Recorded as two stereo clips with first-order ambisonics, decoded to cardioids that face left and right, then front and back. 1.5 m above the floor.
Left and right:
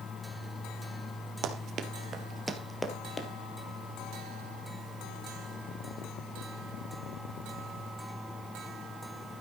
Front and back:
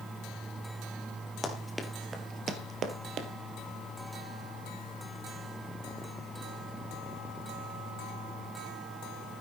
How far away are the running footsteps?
About 1.9 m.